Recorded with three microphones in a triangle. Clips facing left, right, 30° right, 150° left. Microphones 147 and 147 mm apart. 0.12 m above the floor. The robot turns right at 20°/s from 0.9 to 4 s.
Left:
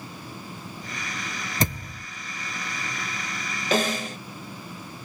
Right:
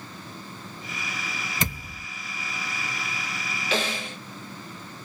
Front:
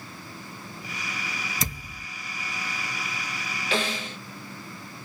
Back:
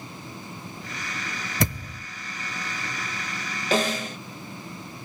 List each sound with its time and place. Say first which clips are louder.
1.6 s a thud: left 7 dB, back 8 dB; 135° left, 1.1 m; by 2.1 s 145° left, 1.1 m
3.7 s a snare drum: left 5 dB, back 5 dB; 115° left, 0.6 m; by 4.2 s 120° left, 0.6 m